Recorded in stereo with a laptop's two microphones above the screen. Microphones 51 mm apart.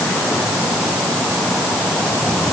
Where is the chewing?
No chewing in this recording.